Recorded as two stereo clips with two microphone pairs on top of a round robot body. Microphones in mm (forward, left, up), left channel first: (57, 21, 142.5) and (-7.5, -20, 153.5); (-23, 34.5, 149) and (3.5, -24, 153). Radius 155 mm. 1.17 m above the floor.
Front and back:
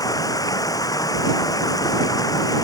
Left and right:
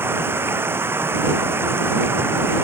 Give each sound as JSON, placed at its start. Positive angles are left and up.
{"t": 0.0, "sound": "running water", "azimuth_deg": -10}